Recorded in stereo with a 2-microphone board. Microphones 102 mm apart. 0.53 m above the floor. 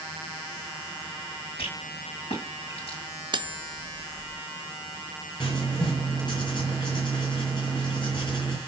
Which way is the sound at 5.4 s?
50° left (ahead or behind).